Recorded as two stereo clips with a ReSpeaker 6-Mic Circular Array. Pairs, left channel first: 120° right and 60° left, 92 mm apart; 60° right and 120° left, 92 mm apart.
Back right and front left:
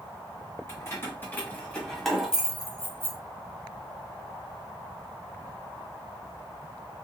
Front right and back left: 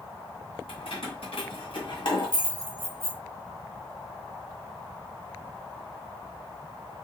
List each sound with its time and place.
0.7 s keys jangling: 65° right, 1.9 m; by 3.2 s 5° left, 1.4 m